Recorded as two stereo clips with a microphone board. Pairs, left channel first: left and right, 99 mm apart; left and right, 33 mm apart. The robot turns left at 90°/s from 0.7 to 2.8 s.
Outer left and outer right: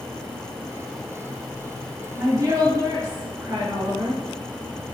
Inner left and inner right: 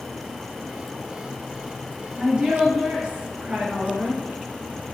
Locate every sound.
2.2 s a woman speaking: 55° right, 1.9 m; by 4.2 s 110° right, 1.9 m